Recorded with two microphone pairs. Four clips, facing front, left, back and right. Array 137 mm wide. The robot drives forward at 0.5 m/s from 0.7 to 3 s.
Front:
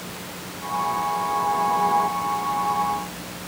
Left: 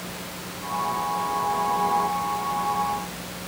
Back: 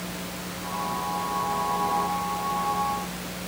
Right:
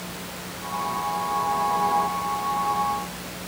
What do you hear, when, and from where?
Only background noise.